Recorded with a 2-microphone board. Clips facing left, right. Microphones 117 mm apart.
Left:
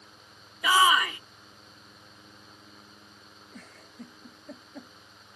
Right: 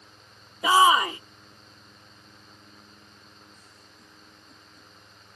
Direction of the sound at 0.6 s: 30° right (ahead or behind).